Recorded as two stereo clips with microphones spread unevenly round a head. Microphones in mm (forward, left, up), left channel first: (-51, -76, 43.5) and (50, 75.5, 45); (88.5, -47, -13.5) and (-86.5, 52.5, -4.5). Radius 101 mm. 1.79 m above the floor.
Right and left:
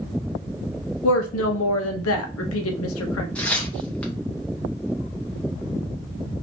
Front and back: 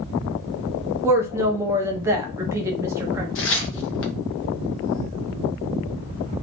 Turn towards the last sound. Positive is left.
turn(degrees=-40)